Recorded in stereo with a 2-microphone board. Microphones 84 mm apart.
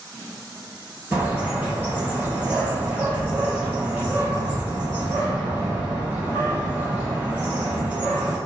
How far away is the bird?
About 1.9 m.